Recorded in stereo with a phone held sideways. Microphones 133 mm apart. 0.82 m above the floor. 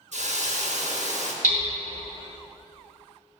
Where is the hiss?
65° right (ahead or behind), 0.8 m.